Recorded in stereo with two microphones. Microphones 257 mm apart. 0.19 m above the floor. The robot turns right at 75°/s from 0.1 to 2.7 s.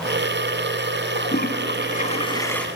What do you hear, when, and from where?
1.1 s a toilet flushing: 60° left, 1.6 m; by 2.7 s 175° left, 1.6 m